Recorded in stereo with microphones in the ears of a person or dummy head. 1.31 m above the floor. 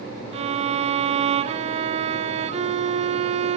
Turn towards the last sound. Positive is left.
turn(degrees=-35)  # may be behind; listen again after turning